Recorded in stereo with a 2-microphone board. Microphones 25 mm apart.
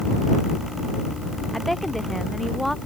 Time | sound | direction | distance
1.5 | a woman speaking | 5° left (ahead or behind) | ?